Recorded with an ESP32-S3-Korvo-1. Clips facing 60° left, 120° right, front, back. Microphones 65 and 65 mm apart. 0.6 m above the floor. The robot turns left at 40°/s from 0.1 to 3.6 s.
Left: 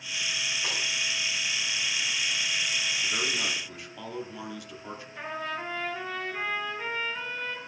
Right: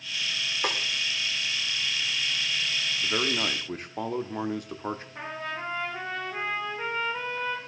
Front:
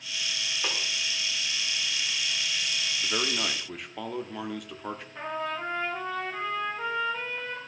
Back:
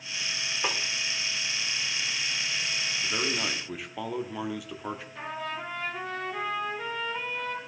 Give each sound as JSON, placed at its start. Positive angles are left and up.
{"t": 0.6, "sound": "a snare drum", "azimuth_deg": -105, "distance_m": 1.7}
{"t": 3.0, "sound": "a man speaking", "azimuth_deg": -65, "distance_m": 0.8}
{"t": 5.2, "sound": "a trumpet", "azimuth_deg": -70, "distance_m": 5.0}